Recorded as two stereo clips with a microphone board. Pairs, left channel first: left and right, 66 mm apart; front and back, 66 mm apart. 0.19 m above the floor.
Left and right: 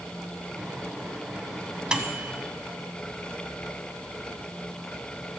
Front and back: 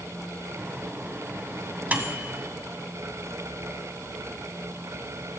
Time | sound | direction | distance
0.6 | a microwave | 155° right | 0.9 m